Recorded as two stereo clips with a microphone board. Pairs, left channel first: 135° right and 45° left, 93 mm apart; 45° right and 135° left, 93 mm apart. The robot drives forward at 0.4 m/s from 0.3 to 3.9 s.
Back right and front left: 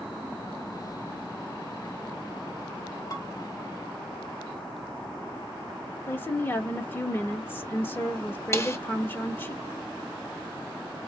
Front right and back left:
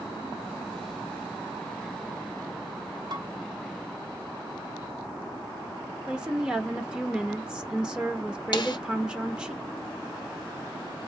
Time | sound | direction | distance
3.1 | dishes clattering | 175° left | 1.8 m
6.1 | a woman speaking | 160° right | 0.8 m
8.5 | a snare drum | 75° right | 0.7 m